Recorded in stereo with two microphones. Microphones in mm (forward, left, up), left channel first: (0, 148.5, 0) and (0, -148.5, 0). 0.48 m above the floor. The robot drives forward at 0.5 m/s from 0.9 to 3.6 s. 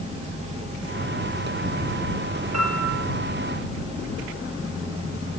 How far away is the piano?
About 2.5 m.